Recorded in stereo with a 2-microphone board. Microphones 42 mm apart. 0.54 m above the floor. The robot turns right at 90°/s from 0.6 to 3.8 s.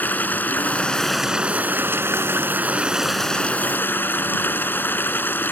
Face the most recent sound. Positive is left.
turn(degrees=60)